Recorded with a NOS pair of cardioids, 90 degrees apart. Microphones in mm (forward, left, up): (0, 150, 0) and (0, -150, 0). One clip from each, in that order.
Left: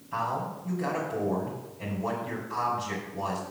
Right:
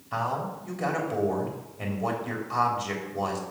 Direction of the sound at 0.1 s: 55° right.